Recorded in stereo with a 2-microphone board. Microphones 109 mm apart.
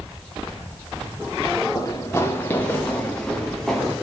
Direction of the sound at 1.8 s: 30° left (ahead or behind).